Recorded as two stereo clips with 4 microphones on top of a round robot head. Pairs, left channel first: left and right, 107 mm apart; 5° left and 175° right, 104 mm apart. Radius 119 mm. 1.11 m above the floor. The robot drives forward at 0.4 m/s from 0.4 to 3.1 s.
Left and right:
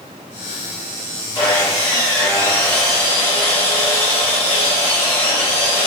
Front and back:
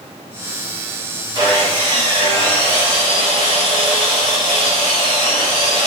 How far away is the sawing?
About 1.8 m.